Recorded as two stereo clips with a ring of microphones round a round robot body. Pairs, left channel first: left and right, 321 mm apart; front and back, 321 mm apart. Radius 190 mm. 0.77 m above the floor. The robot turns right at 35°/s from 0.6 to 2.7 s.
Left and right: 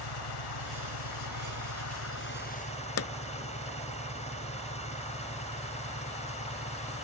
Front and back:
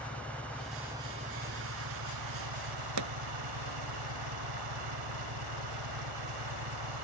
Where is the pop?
135° left.